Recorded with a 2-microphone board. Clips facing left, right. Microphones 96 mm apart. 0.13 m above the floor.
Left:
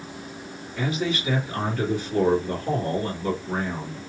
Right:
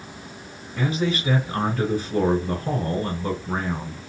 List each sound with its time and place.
0.8 s a man speaking: 35° right (ahead or behind), 2.5 m